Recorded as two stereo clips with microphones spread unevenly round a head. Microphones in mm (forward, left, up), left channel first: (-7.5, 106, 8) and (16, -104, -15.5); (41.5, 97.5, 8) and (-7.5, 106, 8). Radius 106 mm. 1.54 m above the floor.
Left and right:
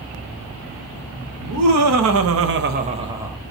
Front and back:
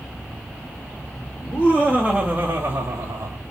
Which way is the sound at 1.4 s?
80° right.